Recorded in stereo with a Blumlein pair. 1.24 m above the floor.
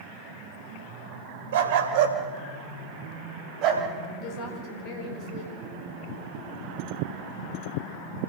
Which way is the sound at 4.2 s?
40° left.